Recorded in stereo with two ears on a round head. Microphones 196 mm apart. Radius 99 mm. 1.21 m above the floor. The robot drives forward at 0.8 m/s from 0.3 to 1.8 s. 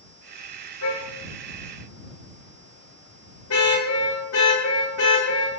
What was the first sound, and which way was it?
A car horn, 85° left.